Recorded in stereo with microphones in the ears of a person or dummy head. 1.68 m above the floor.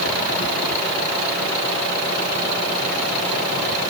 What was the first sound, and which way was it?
Only background noise.